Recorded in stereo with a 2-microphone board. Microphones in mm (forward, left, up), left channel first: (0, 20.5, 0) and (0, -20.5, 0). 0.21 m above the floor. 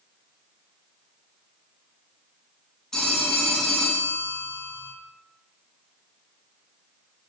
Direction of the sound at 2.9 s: 15° left (ahead or behind).